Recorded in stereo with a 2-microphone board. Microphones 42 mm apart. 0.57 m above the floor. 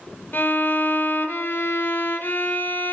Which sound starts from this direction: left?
A violin, at 0.3 s.